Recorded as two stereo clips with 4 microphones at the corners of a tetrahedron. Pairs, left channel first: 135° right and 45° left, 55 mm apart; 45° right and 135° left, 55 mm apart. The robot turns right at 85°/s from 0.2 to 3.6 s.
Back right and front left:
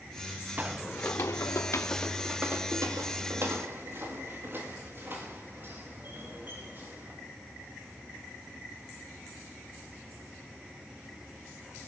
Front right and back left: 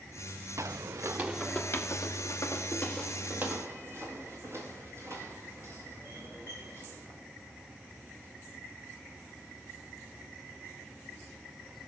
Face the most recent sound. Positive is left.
turn(degrees=100)